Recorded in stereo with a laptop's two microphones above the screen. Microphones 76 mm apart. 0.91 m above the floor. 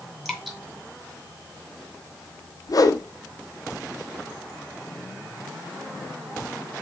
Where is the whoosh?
55° left (ahead or behind), 0.5 m.